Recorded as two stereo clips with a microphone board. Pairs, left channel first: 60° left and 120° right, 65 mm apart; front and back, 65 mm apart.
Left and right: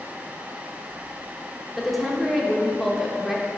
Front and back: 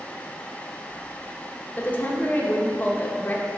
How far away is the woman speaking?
About 0.9 m.